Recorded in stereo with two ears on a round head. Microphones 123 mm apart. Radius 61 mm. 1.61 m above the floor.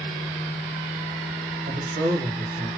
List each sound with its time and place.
1.6 s a man speaking: 60° right (ahead or behind), 1.3 m; by 2.7 s 70° right (ahead or behind), 1.4 m